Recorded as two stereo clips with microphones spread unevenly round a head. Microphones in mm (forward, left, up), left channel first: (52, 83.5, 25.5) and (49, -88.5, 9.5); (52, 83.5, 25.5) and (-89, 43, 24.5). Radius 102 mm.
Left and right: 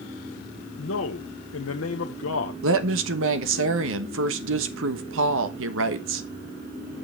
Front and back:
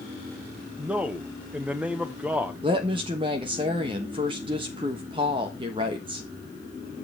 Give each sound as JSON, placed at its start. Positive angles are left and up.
{"t": 0.8, "sound": "a man speaking", "azimuth_deg": 115, "distance_m": 0.8}
{"t": 2.6, "sound": "a woman speaking", "azimuth_deg": -95, "distance_m": 1.2}